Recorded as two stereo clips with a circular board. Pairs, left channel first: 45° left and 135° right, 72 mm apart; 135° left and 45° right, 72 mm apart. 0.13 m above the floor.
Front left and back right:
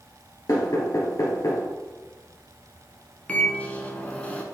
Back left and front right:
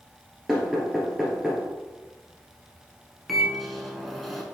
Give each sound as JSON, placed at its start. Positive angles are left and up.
{"t": 0.5, "sound": "knocking", "azimuth_deg": 45, "distance_m": 1.9}
{"t": 3.3, "sound": "a microwave", "azimuth_deg": 45, "distance_m": 1.0}